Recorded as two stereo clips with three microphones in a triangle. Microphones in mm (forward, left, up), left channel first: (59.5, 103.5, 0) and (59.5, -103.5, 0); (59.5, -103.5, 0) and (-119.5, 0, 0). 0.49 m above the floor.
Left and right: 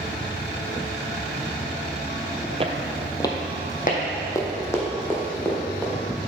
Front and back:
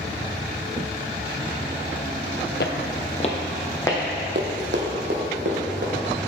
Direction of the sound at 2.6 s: 35° right.